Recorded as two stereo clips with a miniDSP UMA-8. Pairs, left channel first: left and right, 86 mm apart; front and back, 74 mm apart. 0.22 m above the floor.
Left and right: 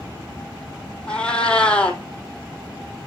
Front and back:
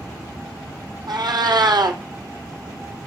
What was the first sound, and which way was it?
A cat meowing, 170° left.